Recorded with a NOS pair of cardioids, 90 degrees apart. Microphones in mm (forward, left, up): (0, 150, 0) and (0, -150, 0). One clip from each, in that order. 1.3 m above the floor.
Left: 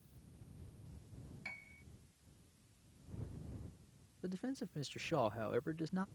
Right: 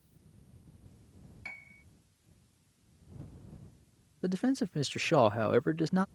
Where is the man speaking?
50° right.